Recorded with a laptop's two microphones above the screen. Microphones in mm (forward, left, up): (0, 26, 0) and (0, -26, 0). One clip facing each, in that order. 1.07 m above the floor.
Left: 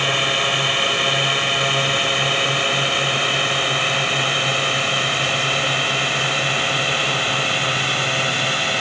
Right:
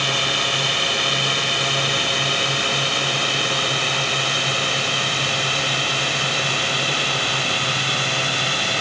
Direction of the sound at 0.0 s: 20° left (ahead or behind).